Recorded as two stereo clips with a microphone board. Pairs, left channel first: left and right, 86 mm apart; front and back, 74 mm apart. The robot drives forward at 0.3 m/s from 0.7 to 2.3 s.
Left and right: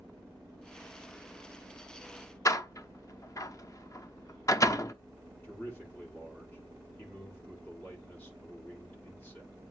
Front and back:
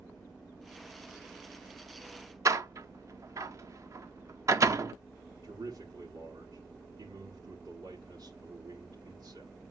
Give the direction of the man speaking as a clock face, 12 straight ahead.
7 o'clock.